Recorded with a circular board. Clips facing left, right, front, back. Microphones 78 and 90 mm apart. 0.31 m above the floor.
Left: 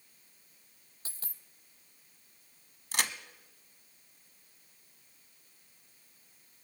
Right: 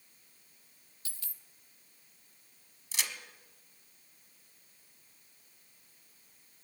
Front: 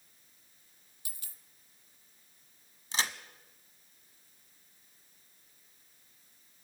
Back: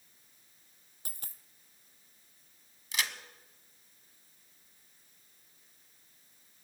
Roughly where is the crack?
Ahead left.